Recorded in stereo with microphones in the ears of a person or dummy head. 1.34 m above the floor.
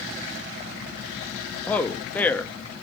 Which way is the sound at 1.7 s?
10° left (ahead or behind).